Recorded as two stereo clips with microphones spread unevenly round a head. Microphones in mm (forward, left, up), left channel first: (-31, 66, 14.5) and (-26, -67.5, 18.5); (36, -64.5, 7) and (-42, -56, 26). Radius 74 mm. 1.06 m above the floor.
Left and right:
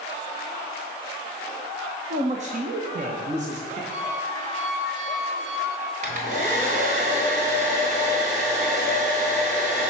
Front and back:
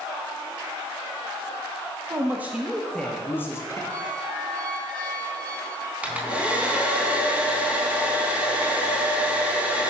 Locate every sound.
2.1 s a man speaking: 125° right, 1.1 m; by 3.8 s 50° right, 1.5 m
3.9 s a squeak: 85° right, 2.5 m
6.0 s a hair dryer: 115° right, 3.5 m